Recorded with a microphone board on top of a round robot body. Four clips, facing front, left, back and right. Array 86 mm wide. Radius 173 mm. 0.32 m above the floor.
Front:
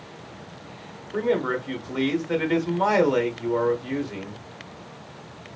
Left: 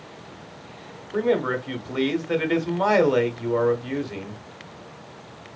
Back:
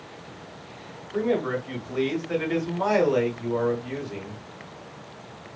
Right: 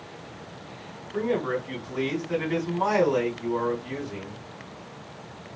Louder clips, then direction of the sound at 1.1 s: Left 4 dB, front 1 dB; 75° left.